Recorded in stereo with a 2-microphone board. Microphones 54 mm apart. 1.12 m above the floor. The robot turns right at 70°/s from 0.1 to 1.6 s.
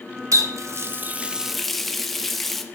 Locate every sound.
0.3 s a running tap: 85° right, 0.8 m; by 2.6 s 5° left, 0.8 m